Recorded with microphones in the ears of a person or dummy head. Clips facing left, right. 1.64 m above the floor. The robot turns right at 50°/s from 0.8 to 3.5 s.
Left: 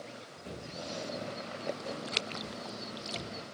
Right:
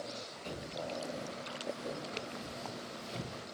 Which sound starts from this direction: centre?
Footsteps, at 0.4 s.